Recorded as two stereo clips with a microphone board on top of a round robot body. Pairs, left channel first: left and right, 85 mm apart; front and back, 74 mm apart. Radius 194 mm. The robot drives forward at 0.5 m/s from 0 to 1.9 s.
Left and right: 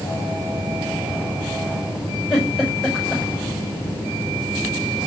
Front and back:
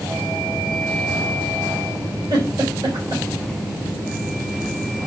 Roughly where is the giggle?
Behind.